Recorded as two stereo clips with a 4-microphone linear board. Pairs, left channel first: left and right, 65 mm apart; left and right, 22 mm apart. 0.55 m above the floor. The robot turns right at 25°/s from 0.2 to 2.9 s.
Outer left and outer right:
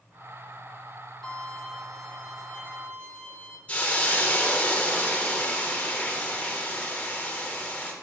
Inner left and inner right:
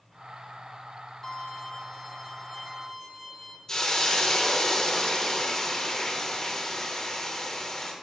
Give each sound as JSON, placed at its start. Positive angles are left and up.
{"t": 1.2, "sound": "a violin", "azimuth_deg": 175, "distance_m": 1.9}
{"t": 3.7, "sound": "a hiss", "side_deg": 25, "distance_m": 0.9}